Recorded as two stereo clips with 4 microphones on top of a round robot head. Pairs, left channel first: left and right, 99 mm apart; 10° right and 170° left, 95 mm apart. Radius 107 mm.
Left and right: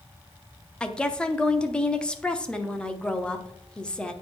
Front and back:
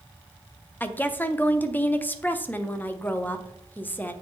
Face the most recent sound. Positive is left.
turn(degrees=25)